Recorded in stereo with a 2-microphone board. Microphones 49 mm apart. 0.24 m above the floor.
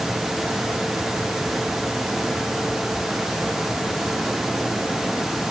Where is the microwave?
I don't hear a microwave.